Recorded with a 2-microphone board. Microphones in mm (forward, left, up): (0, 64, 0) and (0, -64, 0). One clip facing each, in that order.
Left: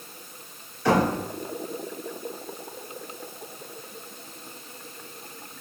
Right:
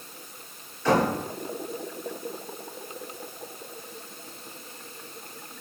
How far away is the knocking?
About 2 m.